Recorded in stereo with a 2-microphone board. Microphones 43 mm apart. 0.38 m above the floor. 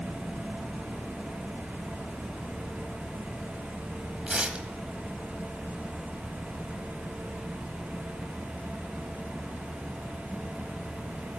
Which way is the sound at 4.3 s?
25° right (ahead or behind).